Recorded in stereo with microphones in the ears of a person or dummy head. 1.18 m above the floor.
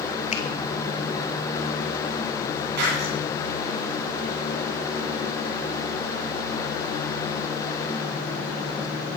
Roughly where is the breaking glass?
Right.